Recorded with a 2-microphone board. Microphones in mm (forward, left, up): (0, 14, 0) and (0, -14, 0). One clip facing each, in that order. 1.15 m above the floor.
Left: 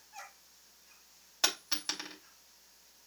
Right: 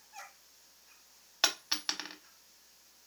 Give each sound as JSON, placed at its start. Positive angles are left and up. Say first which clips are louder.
{"t": 1.4, "sound": "a dropped coin", "louder": "right 1 dB", "side_deg": -30, "distance_m": 1.3}